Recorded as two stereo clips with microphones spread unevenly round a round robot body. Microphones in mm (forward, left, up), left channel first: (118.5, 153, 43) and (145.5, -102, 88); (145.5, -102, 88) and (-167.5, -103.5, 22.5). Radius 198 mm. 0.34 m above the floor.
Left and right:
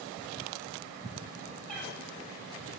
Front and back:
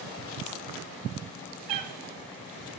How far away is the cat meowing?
About 1.1 m.